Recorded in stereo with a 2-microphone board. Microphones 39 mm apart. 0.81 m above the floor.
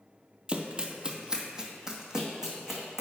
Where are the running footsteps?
25° right (ahead or behind), 0.9 m; by 3.0 s 10° right (ahead or behind), 2 m.